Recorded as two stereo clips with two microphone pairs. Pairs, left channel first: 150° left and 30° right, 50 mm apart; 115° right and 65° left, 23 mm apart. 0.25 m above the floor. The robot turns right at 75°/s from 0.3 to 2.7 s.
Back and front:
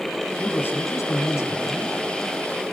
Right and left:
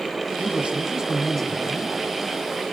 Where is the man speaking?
80° left, 5.5 m; by 2.0 s 160° right, 5.5 m.